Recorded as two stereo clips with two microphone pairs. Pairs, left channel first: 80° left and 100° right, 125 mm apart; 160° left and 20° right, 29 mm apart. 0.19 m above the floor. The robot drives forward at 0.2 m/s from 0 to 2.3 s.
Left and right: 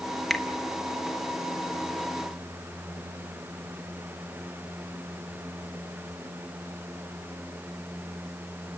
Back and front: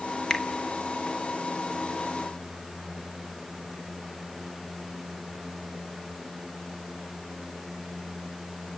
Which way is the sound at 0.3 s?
165° left.